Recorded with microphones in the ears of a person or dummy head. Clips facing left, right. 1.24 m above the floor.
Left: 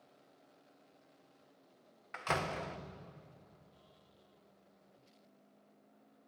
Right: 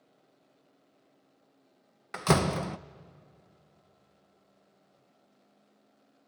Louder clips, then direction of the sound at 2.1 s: Right 11 dB; 65° right (ahead or behind).